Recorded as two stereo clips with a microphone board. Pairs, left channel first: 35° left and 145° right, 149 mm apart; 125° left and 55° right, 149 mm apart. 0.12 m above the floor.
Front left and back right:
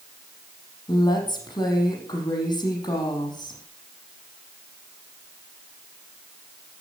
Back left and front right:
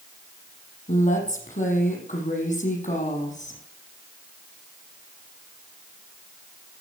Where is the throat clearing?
I don't hear throat clearing.